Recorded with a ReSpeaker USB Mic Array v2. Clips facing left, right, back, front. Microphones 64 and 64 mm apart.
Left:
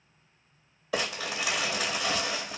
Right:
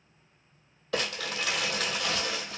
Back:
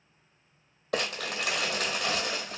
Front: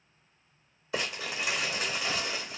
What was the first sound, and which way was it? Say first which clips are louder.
Crumpling: left 1 dB, back 2 dB; 175° left.